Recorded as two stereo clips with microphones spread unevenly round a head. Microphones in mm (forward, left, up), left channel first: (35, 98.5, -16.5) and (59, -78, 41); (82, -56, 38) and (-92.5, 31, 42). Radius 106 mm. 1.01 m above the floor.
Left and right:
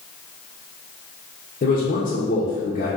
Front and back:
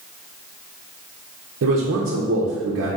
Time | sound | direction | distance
1.6 | a man speaking | 135° left | 0.6 m